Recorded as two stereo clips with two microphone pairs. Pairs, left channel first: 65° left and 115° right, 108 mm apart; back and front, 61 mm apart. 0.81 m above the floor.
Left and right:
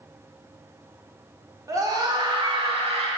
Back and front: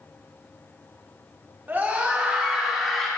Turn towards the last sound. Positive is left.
turn(degrees=-100)